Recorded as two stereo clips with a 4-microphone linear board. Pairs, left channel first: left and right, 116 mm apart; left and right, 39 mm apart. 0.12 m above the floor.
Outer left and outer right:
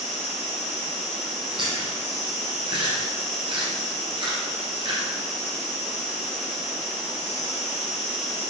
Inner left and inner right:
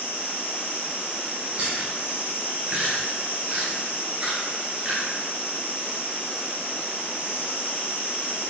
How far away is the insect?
About 0.8 m.